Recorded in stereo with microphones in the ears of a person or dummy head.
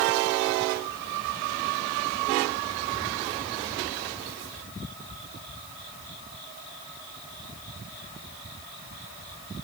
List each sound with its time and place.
Only background noise.